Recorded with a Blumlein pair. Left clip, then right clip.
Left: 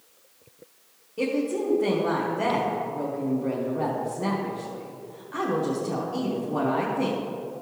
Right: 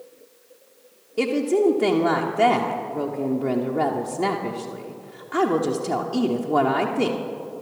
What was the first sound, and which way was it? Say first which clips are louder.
A woman speaking: right 6 dB; 65° right.